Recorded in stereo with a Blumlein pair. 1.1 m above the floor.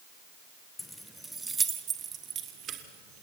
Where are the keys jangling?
10° left, 1.0 m; by 3.2 s 35° right, 2.5 m.